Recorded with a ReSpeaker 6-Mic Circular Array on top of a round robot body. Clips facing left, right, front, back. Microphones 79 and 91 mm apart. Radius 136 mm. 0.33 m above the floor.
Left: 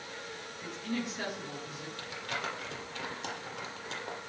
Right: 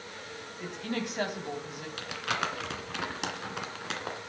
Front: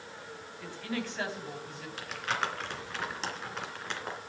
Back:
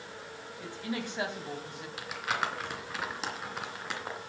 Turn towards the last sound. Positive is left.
turn(degrees=-95)